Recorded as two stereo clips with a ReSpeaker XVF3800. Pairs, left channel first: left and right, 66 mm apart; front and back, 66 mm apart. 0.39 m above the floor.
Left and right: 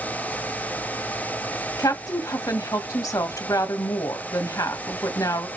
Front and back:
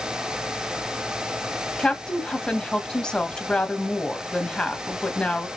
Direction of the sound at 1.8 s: 75° left.